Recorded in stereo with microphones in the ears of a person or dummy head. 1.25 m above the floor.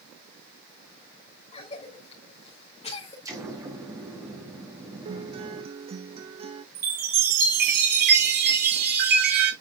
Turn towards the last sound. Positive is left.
turn(degrees=-55)  # may be behind; listen again after turning